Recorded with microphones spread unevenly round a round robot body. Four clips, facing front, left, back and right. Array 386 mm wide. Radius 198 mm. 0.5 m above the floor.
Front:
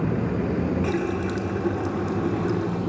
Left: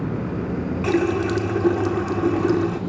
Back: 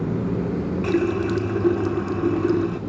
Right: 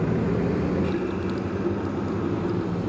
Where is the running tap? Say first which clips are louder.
Left 6 dB, back 4 dB; 135° left, 0.6 m.